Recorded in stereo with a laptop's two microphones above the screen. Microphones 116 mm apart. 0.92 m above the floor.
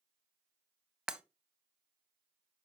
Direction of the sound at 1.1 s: 5° right (ahead or behind).